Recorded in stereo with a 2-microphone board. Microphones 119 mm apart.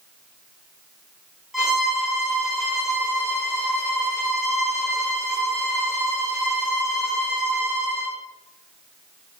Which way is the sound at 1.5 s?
Centre (ahead or behind).